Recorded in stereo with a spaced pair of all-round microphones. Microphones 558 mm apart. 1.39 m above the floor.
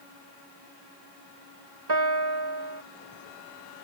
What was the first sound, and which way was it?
A piano, 45° right (ahead or behind).